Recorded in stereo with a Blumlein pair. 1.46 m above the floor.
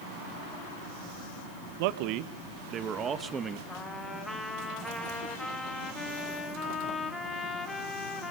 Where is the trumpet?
10° left, 3 m.